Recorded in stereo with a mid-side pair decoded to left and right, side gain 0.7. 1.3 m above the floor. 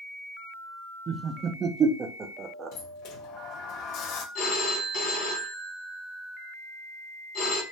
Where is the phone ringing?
60° left, 1.3 m.